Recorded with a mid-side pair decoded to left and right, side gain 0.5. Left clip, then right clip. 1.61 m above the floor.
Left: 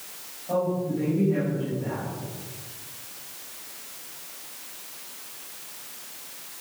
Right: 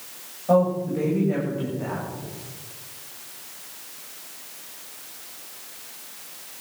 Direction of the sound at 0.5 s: 65° right.